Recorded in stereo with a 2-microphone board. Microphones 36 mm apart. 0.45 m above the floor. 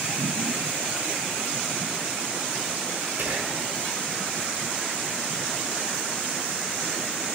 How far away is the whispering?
About 1.4 m.